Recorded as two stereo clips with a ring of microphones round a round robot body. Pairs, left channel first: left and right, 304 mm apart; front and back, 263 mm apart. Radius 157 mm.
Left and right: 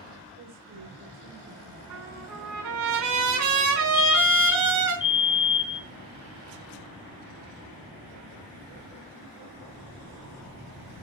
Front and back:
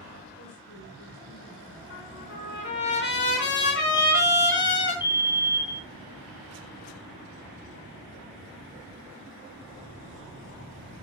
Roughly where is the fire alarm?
Ahead left.